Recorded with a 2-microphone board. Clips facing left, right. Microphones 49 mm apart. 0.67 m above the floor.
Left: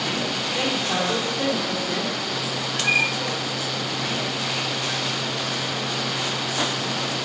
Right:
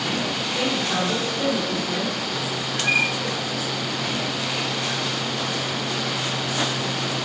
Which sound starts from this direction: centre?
A man speaking, at 0.6 s.